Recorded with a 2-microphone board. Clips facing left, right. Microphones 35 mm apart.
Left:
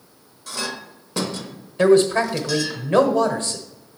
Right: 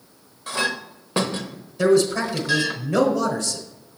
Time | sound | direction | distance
0.5 | a clink | 35° right (ahead or behind) | 0.8 m
1.8 | a man speaking | 40° left (ahead or behind) | 1.3 m